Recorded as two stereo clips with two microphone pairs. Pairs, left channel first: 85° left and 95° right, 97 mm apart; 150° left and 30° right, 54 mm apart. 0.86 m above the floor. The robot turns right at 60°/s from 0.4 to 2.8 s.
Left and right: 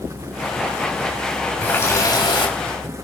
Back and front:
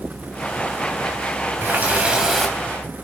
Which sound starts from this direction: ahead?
A running tap, at 1.6 s.